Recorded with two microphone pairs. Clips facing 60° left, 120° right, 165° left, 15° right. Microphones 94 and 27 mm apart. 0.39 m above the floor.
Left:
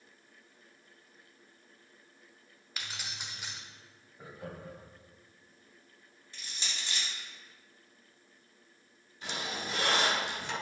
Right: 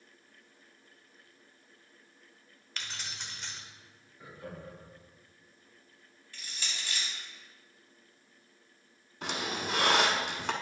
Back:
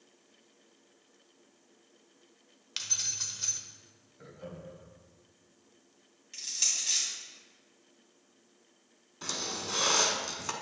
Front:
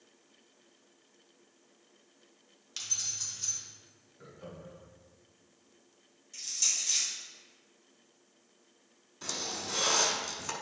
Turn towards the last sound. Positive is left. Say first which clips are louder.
# right 3 dB, back 1 dB
turn(degrees=-115)